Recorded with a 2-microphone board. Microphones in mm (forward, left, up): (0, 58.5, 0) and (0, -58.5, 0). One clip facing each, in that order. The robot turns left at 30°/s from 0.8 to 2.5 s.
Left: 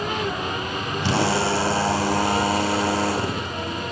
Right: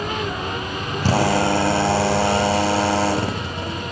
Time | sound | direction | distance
1.0 | a drill | 40° right | 6 m